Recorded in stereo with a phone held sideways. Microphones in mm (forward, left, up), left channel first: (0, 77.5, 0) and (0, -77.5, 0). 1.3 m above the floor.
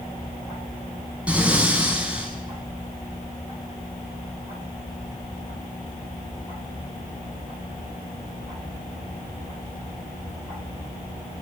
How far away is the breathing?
About 6 m.